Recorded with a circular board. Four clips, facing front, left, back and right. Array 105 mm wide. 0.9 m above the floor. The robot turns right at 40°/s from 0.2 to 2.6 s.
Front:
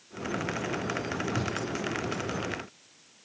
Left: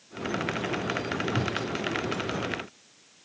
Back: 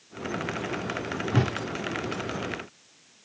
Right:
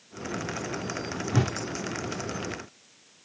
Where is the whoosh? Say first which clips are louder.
Right 6 dB, back 10 dB; 155° right; by 1.5 s 145° right.